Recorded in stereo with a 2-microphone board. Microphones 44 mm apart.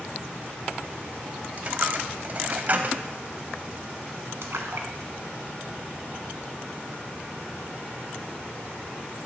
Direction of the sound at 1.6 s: 40° right (ahead or behind).